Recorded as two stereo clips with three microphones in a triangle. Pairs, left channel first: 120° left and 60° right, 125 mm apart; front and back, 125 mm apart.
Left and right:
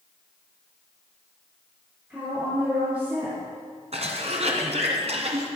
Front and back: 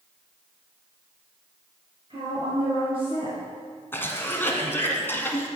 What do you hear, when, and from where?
2.1 s a woman speaking: 140° right, 4 m
3.9 s a cough: 70° right, 2 m